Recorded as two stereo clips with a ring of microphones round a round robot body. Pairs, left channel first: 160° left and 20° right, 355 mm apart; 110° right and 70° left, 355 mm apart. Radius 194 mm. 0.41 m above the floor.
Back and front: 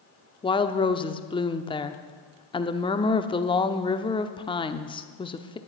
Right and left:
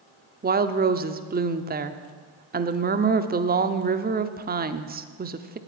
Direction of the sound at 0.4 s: 95° left.